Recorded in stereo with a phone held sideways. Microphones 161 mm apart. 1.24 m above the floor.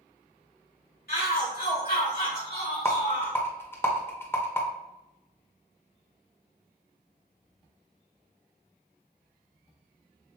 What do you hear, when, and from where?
1.1 s a shout: 70° left (ahead or behind), 1.3 m; by 3.4 s 80° left, 3 m
2.9 s a rattle: 15° left (ahead or behind), 0.8 m